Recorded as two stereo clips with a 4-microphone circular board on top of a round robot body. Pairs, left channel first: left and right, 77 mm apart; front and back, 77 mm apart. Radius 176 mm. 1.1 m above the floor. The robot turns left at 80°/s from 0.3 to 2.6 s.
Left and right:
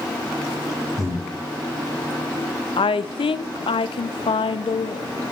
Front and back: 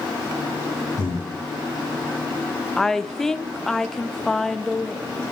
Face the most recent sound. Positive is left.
turn(degrees=85)